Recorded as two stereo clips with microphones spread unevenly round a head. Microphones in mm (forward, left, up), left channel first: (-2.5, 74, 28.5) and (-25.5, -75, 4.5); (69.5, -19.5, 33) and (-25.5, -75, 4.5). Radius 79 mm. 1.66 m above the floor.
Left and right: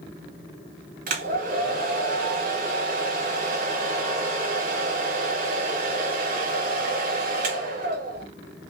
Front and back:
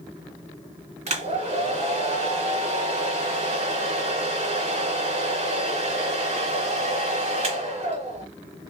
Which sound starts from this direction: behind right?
A hair dryer, at 1.1 s.